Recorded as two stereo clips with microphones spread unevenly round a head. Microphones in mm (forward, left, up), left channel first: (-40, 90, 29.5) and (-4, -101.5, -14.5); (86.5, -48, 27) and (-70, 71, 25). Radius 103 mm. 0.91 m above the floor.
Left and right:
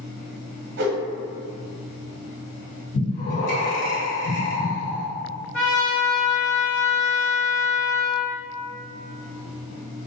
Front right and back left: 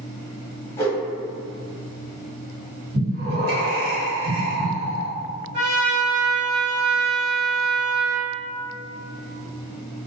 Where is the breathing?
130° left, 1.4 m.